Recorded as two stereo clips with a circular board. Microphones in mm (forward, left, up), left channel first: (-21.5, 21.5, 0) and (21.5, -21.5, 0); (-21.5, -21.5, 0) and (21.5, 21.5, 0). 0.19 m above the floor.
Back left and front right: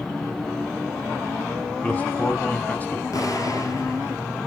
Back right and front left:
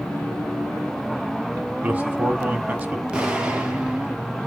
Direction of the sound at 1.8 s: 95° left.